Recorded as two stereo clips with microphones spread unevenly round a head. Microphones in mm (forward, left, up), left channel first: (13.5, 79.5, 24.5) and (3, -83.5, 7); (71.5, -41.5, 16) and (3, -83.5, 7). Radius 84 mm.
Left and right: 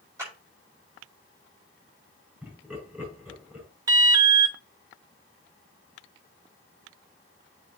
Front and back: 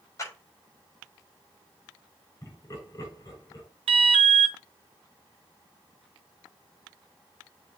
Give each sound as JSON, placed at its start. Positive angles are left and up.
{"t": 0.2, "sound": "a clap", "azimuth_deg": -20, "distance_m": 5.5}
{"t": 2.4, "sound": "laughter", "azimuth_deg": -15, "distance_m": 6.5}
{"t": 3.9, "sound": "an alarm", "azimuth_deg": -165, "distance_m": 0.6}